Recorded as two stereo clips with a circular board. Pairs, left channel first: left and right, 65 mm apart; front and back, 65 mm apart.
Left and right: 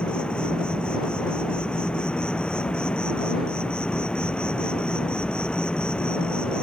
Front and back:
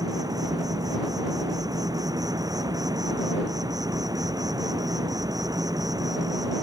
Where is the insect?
165° left.